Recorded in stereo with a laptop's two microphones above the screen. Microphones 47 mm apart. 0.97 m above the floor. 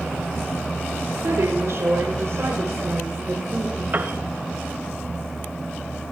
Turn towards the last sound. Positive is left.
turn(degrees=-45)  # may be behind; listen again after turning